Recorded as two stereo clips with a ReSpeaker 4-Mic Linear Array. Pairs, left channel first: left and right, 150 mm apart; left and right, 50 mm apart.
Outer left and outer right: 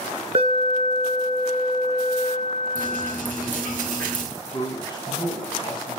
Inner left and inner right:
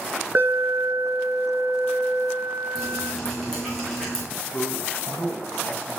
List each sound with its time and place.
0.3 s an alarm: 45° right (ahead or behind), 1.5 m
2.8 s dripping: 10° left (ahead or behind), 3 m
4.5 s a man speaking: 30° left (ahead or behind), 1.8 m